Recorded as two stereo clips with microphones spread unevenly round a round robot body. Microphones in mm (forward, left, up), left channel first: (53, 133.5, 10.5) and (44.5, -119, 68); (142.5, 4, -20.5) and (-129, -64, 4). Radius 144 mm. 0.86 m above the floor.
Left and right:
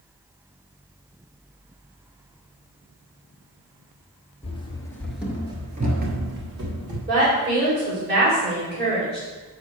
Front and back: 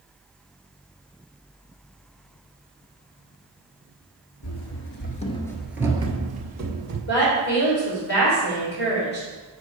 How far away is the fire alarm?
No fire alarm in this recording.